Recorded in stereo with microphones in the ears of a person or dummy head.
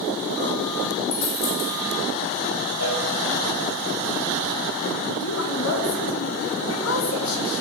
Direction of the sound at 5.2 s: 80° left.